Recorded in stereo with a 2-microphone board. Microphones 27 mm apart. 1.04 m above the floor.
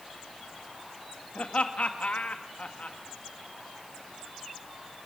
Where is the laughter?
60° left (ahead or behind), 1.7 m.